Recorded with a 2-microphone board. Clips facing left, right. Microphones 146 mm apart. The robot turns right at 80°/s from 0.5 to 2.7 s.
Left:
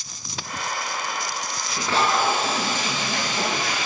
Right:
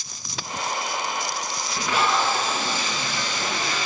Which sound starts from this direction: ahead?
Tape being pulled, at 1.7 s.